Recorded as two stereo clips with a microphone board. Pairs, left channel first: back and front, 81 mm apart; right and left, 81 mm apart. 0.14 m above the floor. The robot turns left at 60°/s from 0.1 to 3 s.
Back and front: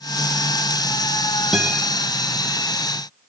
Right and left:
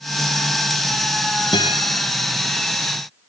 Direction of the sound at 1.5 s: 90° right.